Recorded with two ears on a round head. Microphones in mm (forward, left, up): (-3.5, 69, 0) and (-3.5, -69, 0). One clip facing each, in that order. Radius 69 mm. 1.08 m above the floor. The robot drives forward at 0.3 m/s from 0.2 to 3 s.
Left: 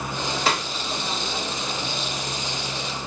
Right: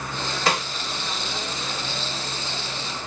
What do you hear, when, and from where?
0.5 s a snare drum: 5° left (ahead or behind), 1.2 m